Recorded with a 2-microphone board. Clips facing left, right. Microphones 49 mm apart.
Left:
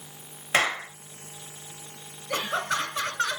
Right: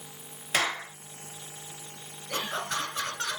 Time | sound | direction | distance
0.5 | a clap | 30° left (ahead or behind) | 2.5 m
2.3 | laughter | 30° left (ahead or behind) | 2 m